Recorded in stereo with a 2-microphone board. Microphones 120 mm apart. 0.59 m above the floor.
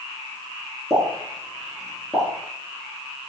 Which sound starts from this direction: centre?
A pop, at 0.9 s.